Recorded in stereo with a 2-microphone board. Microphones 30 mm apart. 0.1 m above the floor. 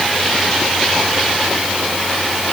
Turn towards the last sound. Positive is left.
No sound to turn to.